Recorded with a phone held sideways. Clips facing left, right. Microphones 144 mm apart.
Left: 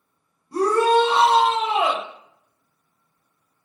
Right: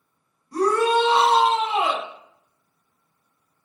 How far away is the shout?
About 1.6 m.